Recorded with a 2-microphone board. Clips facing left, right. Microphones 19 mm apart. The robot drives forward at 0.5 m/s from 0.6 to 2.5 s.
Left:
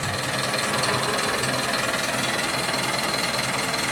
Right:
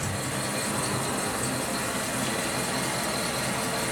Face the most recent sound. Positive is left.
turn(degrees=50)  # may be behind; listen again after turning